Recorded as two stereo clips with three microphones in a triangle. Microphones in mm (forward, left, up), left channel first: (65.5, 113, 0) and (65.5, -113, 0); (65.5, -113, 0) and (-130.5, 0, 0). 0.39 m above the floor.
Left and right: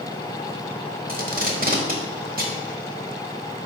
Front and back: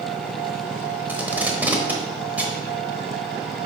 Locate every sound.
1.1 s tape being pulled: 130° right, 1.1 m